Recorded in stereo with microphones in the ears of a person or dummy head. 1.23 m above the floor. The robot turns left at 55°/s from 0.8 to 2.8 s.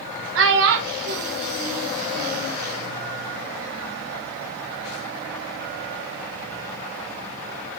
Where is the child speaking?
70° right (ahead or behind), 0.5 m; by 2.5 s 10° right (ahead or behind), 0.5 m.